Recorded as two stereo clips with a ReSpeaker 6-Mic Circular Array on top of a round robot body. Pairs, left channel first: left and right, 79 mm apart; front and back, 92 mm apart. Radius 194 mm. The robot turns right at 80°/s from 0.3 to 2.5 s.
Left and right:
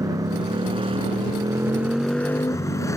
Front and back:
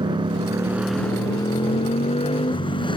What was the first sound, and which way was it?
A motorcycle, 140° right.